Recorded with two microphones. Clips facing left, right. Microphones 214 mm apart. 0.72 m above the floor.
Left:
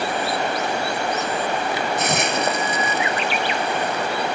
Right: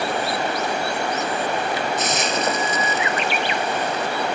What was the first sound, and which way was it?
A hiss, 60° left (ahead or behind).